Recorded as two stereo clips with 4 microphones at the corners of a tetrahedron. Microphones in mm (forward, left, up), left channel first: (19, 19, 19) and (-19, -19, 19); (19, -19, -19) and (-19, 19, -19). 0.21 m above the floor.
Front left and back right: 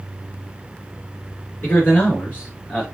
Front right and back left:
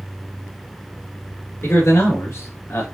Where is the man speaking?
10° right, 2.5 m; by 2.8 s 25° right, 1.9 m.